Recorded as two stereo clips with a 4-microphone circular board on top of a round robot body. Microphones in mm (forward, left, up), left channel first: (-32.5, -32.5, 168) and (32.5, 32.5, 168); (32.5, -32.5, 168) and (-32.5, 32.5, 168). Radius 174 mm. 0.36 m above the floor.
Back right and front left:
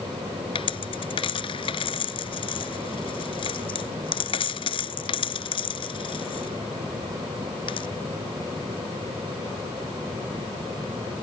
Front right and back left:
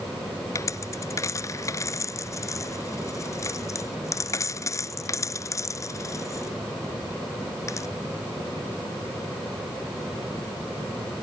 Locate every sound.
0.6 s a dropped coin: 105° right